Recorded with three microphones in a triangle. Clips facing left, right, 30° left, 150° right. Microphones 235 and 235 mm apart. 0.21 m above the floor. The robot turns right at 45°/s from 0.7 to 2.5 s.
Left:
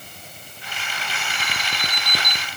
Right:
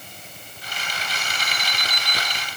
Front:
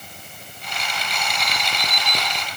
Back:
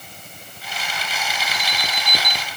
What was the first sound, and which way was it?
An alarm, 95° left.